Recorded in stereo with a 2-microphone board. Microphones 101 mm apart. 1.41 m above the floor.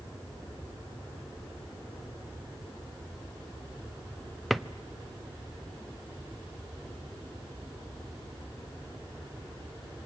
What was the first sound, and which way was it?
A drawer, centre (ahead or behind).